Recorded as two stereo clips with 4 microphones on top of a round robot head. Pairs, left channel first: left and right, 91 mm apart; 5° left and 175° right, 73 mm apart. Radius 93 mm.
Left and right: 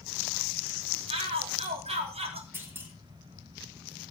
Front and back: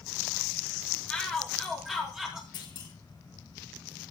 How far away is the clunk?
About 5 m.